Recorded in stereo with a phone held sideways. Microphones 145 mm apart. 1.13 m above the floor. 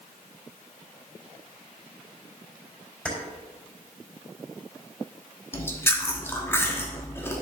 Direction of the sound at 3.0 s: 5° left (ahead or behind).